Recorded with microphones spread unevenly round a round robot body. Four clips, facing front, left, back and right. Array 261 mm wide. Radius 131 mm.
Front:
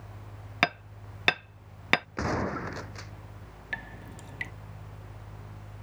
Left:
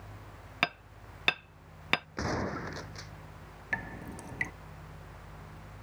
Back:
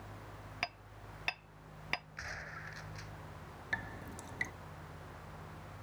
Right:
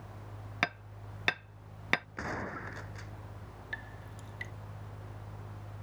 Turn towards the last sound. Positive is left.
turn(degrees=80)